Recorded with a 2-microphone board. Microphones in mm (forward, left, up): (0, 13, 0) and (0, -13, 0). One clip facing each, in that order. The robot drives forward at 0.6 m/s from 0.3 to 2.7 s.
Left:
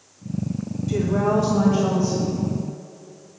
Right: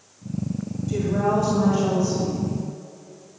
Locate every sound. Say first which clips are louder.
0.9 s a woman speaking: left 1 dB; 25° left (ahead or behind), 1.5 m; by 2.4 s 15° left (ahead or behind), 2.5 m